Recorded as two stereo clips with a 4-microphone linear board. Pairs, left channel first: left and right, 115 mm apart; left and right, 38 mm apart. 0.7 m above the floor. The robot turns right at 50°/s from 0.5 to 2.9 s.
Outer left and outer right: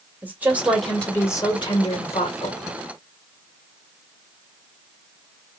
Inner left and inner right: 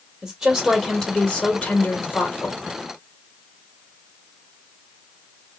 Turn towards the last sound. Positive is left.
turn(degrees=105)